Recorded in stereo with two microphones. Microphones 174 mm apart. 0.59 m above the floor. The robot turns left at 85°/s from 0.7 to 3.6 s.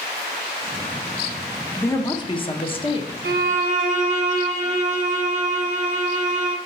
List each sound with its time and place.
1.8 s a woman speaking: 160° left, 0.8 m; by 3.1 s 45° left, 0.8 m
3.2 s a violin: 105° right, 0.9 m; by 6.6 s 135° right, 0.9 m